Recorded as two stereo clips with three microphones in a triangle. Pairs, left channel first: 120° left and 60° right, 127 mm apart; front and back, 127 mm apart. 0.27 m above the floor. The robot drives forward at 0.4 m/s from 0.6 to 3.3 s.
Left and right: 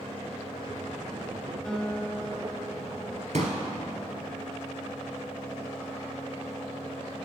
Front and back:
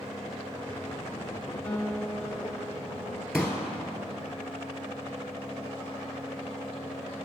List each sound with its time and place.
1.6 s a guitar: 50° left, 1.2 m; by 3.2 s 135° left, 1.2 m
3.3 s a pop: 95° right, 1.5 m